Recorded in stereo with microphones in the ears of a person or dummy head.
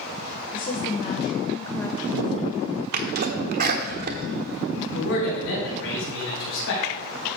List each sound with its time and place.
0.5 s a woman speaking: 55° left (ahead or behind), 1.4 m; by 2.8 s centre (ahead or behind), 1.8 m
2.9 s a sneeze: 55° right (ahead or behind), 1.1 m
4.9 s a man speaking: 65° left (ahead or behind), 5 m